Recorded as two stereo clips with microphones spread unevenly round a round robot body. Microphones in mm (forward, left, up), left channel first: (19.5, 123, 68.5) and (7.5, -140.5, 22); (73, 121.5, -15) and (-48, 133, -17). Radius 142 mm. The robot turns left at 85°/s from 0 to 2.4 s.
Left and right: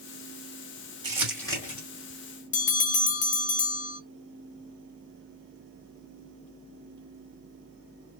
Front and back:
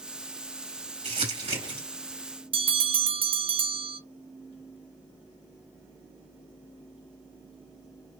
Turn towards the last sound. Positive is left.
turn(degrees=150)